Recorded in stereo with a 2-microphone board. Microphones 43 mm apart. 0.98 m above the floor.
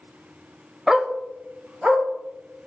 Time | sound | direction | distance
0.9 | a dog barking | 5° right (ahead or behind) | 0.7 m